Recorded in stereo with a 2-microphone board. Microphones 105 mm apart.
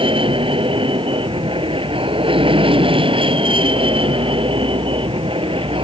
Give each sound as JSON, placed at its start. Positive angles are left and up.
{"t": 0.0, "sound": "an aircraft", "side_deg": -60}